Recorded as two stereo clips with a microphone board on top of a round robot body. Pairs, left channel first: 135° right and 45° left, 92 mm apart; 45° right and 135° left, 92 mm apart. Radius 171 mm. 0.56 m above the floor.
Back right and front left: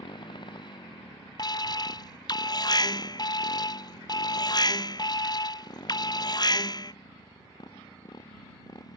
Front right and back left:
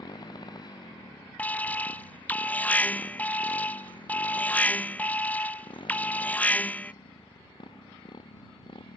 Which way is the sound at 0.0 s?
95° right.